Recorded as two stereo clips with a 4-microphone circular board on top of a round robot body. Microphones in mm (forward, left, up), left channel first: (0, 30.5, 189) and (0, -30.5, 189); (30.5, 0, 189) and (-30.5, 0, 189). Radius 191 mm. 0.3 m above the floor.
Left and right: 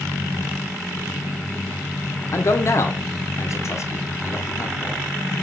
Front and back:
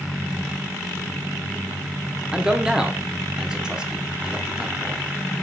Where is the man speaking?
105° left, 1.4 m.